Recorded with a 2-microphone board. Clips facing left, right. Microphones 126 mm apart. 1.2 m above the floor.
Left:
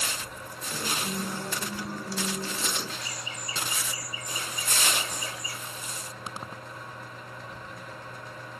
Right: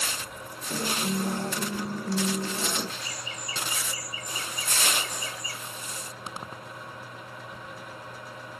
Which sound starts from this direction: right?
A guitar, at 0.7 s.